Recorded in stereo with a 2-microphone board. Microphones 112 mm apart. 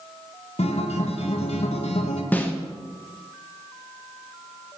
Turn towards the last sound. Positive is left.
turn(degrees=15)  # may be behind; listen again after turning